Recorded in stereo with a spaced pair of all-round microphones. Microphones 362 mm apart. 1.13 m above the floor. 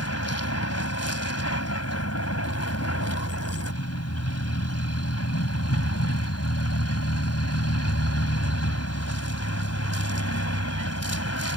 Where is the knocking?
No knocking in this recording.